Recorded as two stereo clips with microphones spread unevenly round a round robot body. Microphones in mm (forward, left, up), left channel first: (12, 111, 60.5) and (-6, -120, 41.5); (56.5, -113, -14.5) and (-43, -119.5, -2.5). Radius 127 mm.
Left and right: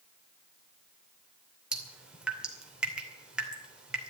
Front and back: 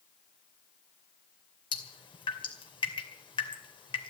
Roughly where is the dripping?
Ahead.